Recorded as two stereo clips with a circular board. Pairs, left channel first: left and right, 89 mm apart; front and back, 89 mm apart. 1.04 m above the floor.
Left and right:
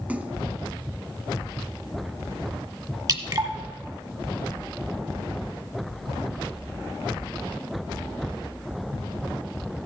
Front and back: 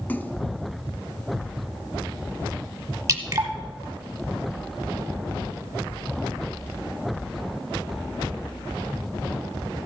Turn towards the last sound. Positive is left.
turn(degrees=-130)